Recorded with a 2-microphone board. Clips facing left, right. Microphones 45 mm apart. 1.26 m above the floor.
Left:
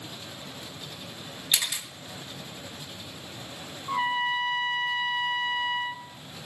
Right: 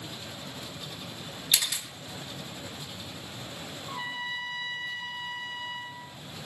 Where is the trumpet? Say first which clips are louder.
Left 9 dB; 55° left (ahead or behind), 0.7 m.